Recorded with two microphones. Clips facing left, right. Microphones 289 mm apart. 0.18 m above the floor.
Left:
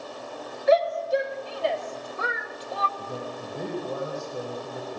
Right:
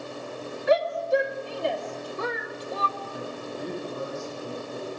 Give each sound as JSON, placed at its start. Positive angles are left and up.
{"t": 0.7, "sound": "a shout", "side_deg": -65, "distance_m": 2.5}
{"t": 3.0, "sound": "a man speaking", "side_deg": 65, "distance_m": 8.5}